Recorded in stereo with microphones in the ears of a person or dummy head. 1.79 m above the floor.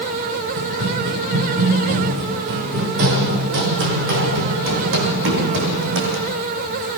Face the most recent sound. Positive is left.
turn(degrees=-60)  # may be behind; listen again after turning